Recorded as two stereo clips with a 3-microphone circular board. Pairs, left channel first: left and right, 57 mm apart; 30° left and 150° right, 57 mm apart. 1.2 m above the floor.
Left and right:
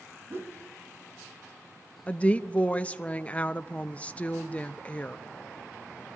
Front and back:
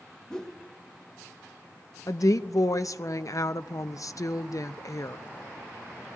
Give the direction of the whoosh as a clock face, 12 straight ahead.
2 o'clock.